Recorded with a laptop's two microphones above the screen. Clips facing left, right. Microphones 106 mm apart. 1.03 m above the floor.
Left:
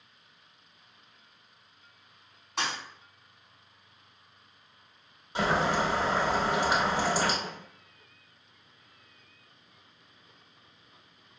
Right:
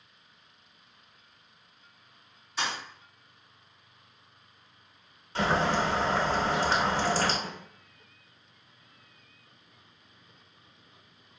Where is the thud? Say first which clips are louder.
Even; 60° left (ahead or behind), 1.1 m.